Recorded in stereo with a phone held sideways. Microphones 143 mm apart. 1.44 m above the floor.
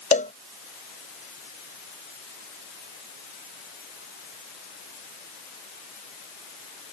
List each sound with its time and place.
0.1 s a cowbell: 60° left (ahead or behind)